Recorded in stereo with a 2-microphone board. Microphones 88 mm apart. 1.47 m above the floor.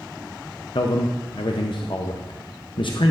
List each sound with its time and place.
0.8 s a man speaking: 70° left (ahead or behind), 0.6 m